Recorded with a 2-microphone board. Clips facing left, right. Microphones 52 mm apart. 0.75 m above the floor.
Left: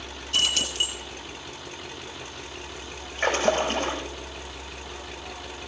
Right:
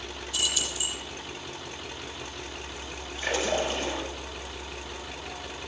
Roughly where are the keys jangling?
Left.